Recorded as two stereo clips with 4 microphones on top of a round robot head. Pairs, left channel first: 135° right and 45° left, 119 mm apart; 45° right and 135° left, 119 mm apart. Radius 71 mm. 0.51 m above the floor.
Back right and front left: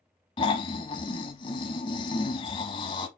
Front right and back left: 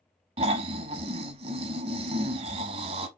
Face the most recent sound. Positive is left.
turn(degrees=175)